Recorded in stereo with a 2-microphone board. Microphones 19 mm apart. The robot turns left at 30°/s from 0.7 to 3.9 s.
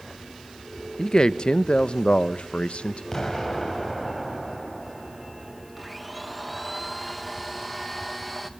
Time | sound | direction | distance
1.0 | a man speaking | 140° left | 0.6 m
3.1 | an explosion | 20° left (ahead or behind) | 2.5 m
5.8 | a blender | centre (ahead or behind) | 1.2 m